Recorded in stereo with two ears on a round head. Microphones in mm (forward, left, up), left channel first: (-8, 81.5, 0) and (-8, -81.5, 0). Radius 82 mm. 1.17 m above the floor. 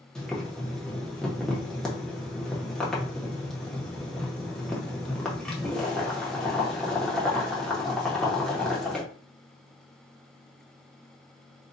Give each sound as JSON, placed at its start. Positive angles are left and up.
{"t": 0.1, "sound": "boiling", "side_deg": 5, "distance_m": 0.8}